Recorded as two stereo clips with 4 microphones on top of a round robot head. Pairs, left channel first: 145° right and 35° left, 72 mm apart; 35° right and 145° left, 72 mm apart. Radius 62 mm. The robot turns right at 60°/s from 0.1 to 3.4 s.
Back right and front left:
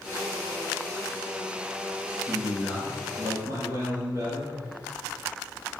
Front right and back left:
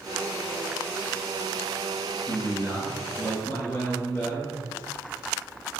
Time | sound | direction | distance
2.3 | a man speaking | 60° right | 1.4 m